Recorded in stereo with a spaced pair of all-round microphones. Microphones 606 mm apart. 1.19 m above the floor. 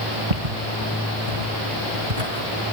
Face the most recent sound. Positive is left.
turn(degrees=-80)